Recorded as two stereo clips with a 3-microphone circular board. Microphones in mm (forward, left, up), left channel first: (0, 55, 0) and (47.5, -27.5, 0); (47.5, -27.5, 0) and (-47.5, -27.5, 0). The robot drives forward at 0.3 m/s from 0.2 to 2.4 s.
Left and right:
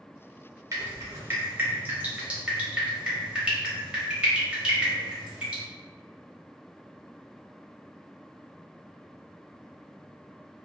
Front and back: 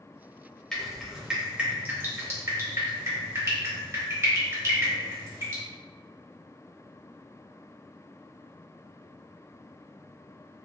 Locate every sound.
0.7 s dripping: 80° right, 0.7 m; by 5.6 s 135° right, 0.8 m